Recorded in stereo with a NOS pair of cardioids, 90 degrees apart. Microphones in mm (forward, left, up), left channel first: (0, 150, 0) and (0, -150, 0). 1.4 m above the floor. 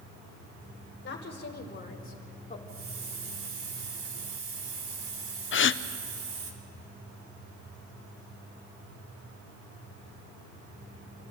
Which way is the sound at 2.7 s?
45° right.